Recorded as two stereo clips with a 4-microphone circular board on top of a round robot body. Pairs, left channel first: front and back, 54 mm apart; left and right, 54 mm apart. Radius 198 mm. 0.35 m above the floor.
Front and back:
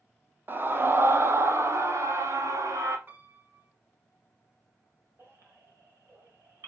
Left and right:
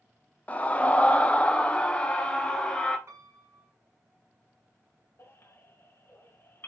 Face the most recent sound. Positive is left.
turn(degrees=140)